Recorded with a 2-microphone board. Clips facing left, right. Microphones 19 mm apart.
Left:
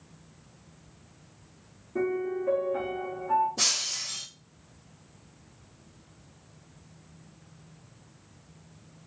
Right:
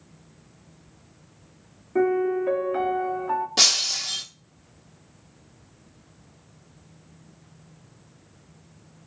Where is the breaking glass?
70° right (ahead or behind), 0.5 m.